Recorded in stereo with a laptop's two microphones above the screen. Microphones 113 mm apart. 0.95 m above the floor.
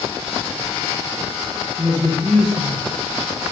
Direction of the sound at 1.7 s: 35° right (ahead or behind).